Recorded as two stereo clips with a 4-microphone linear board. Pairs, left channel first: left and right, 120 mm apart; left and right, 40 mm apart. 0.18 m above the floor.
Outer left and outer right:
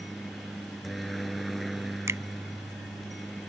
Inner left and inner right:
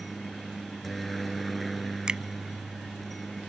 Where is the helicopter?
Centre (ahead or behind).